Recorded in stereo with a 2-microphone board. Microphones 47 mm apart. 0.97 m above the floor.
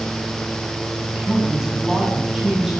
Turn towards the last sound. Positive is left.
turn(degrees=-5)  # may be behind; listen again after turning